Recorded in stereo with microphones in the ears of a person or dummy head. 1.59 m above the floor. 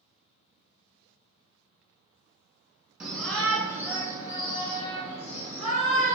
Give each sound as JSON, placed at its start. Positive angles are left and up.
{"t": 3.0, "sound": "a shout", "side_deg": 0, "distance_m": 1.4}